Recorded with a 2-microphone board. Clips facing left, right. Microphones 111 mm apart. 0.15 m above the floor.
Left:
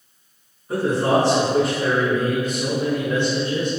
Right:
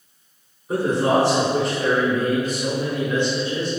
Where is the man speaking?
20° right (ahead or behind), 1.3 m; by 3.7 s 45° left (ahead or behind), 1.4 m.